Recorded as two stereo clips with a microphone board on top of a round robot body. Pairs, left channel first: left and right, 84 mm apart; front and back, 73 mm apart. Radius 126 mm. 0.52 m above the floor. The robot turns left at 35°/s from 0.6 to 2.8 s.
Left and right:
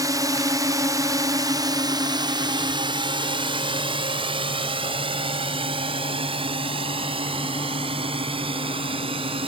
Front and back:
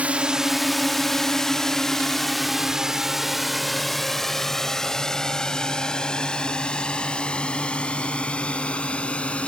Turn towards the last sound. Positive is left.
turn(degrees=-75)